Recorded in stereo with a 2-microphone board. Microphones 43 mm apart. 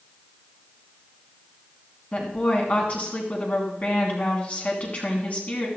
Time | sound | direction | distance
2.1 | a woman speaking | 35° left (ahead or behind) | 3.5 m